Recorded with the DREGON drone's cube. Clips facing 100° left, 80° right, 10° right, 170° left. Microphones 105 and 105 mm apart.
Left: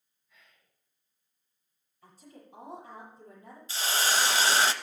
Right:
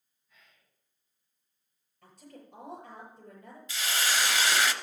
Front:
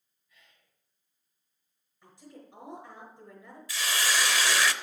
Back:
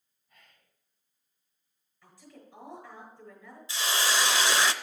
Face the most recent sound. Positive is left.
turn(degrees=125)